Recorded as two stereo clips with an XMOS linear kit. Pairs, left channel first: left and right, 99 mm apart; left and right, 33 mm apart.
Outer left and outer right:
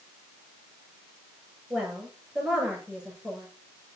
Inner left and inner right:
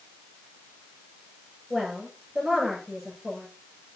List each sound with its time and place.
1.7 s a woman speaking: 5° right (ahead or behind), 7 m